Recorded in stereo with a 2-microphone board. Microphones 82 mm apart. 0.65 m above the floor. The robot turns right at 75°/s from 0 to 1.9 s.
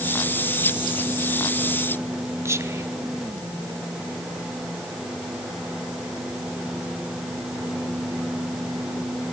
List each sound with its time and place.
2.5 s whispering: 35° right (ahead or behind), 0.7 m